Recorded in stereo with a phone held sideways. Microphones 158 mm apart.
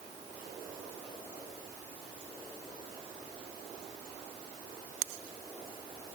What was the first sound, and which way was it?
Only background noise.